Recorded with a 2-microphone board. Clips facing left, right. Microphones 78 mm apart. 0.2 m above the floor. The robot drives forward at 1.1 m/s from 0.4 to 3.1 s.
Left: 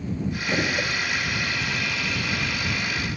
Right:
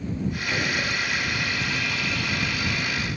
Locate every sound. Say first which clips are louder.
0.5 s a gunshot: left 3 dB; 25° left (ahead or behind), 3 m; by 0.9 s 30° left (ahead or behind), 2.5 m